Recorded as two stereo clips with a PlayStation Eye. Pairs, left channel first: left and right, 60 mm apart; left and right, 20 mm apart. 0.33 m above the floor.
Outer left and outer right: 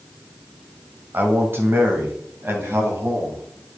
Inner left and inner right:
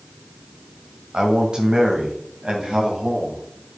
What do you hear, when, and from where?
1.1 s a man speaking: 35° right (ahead or behind), 1.9 m; by 3.4 s 50° right (ahead or behind), 3 m